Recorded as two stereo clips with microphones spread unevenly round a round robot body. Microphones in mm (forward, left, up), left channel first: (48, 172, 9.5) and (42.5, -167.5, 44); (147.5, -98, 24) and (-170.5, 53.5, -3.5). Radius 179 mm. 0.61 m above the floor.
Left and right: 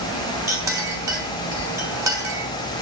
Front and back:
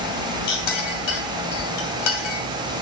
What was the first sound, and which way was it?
A clink, 10° right.